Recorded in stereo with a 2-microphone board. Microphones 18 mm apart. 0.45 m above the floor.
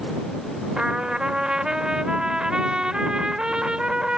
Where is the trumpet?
50° right (ahead or behind).